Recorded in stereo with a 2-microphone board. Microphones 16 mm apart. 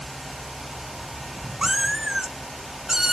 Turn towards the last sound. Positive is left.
turn(degrees=-40)  # may be behind; listen again after turning